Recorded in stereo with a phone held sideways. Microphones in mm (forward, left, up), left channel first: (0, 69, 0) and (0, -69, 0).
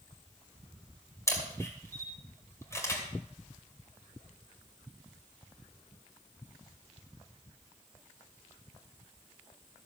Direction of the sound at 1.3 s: 20° left (ahead or behind).